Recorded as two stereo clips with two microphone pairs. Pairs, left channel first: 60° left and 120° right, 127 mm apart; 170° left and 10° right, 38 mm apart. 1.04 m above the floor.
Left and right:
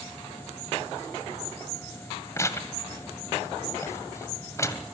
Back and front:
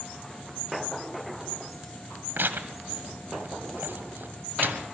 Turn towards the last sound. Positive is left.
turn(degrees=-5)